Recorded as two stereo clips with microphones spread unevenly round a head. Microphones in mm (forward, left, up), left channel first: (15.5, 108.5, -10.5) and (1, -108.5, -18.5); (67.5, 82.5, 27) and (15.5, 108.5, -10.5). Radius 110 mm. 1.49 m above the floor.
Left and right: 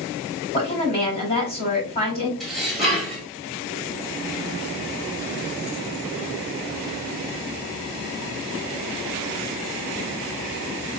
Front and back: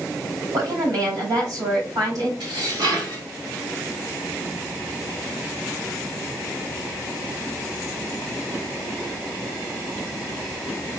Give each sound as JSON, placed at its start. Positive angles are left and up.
{"t": 0.5, "sound": "a woman speaking", "azimuth_deg": 150, "distance_m": 3.5}
{"t": 2.4, "sound": "dishes clattering", "azimuth_deg": 175, "distance_m": 3.0}